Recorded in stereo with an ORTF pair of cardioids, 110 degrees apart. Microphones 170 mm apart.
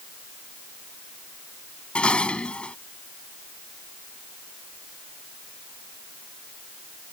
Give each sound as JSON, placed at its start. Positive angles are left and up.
{"t": 1.9, "sound": "dishes clattering", "azimuth_deg": 5}